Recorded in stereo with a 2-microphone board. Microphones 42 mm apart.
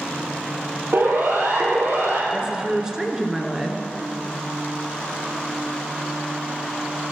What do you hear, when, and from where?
0.9 s a siren: 65° right (ahead or behind), 3 m
2.3 s a woman speaking: 15° right (ahead or behind), 1.6 m